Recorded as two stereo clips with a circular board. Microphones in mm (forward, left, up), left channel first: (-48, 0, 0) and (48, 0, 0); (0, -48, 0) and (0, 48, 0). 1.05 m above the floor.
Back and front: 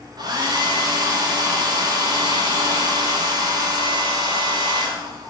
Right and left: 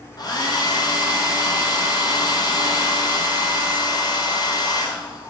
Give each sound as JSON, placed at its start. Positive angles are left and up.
{"t": 0.2, "sound": "a hair dryer", "azimuth_deg": -45, "distance_m": 0.7}